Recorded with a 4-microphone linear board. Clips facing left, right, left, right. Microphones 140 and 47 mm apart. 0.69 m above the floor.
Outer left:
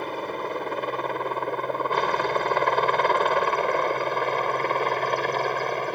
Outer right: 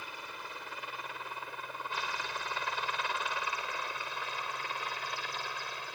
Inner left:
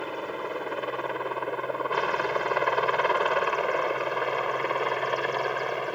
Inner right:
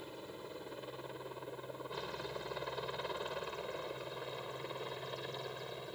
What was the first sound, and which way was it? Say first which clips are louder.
A helicopter: outer left 17 dB, inner left 16 dB; 60° left (ahead or behind).